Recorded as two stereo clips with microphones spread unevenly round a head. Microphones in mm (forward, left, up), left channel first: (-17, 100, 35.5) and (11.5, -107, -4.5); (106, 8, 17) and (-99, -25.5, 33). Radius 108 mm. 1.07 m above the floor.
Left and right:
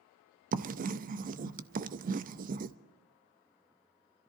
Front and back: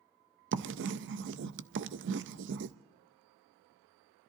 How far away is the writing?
About 0.5 m.